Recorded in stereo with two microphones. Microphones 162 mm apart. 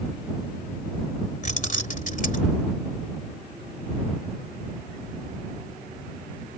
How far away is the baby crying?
No baby crying in this recording.